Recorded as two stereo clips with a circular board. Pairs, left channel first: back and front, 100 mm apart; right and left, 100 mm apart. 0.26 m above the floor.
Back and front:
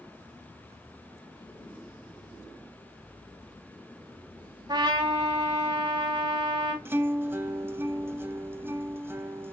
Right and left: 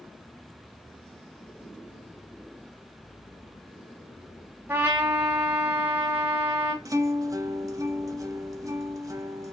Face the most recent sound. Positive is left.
turn(degrees=55)